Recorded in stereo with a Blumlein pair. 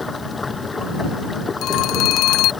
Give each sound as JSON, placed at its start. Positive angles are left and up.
{"t": 0.0, "sound": "running water", "azimuth_deg": 10}
{"t": 1.6, "sound": "a phone ringing", "azimuth_deg": 35}